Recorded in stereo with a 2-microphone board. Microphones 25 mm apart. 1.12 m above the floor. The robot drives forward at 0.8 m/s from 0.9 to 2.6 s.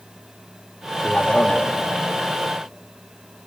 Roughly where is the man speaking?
Left.